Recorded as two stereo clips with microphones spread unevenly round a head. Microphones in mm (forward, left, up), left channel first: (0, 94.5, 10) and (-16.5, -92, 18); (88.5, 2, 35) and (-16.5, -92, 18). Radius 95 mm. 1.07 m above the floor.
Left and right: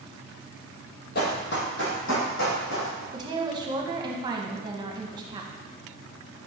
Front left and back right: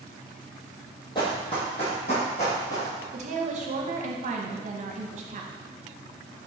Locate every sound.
1.1 s running footsteps: 90° left, 1.4 m
3.1 s a woman speaking: 165° right, 0.9 m